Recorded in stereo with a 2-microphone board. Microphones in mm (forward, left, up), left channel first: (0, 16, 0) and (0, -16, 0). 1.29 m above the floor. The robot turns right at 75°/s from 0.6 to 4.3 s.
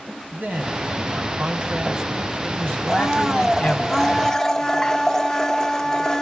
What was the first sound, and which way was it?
A man speaking, 120° right.